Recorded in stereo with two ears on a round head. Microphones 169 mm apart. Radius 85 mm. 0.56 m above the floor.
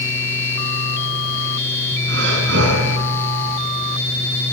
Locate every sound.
2.1 s breathing: 75° right (ahead or behind), 7.5 m